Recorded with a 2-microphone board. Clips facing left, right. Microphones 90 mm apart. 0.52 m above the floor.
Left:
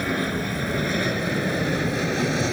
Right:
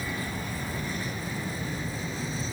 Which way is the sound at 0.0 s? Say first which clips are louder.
Left 9 dB; 70° left (ahead or behind).